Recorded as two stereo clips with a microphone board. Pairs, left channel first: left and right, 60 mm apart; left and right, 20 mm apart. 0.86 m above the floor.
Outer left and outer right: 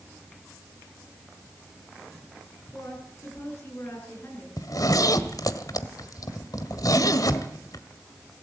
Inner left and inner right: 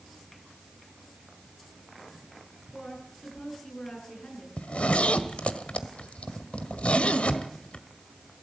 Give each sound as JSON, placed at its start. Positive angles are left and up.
{"t": 2.7, "sound": "a woman speaking", "side_deg": 50, "distance_m": 9.5}
{"t": 4.6, "sound": "a zipper", "side_deg": 80, "distance_m": 1.6}